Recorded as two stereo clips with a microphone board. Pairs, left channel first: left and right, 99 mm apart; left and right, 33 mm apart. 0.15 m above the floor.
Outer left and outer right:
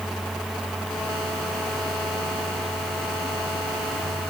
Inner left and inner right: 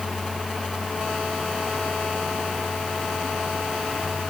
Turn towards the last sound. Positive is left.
No sound to turn to.